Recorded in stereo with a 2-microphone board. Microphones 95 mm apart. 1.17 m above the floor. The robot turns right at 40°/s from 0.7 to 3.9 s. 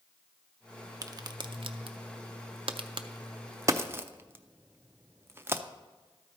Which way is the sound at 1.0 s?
40° right (ahead or behind).